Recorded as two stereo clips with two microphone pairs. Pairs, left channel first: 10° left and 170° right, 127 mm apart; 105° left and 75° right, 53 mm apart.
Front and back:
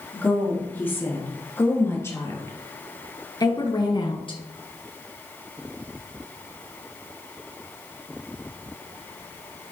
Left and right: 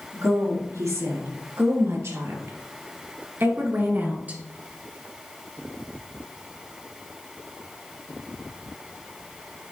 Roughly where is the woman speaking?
Ahead right.